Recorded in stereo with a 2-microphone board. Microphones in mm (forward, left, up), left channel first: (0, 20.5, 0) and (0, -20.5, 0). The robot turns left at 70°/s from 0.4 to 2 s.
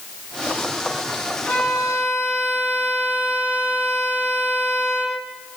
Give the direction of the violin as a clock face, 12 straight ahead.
8 o'clock.